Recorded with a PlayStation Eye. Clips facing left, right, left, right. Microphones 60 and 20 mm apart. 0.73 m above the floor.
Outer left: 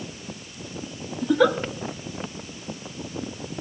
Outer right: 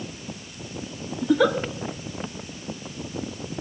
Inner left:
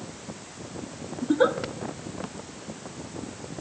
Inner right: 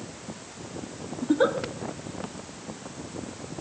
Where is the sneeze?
No sneeze in this recording.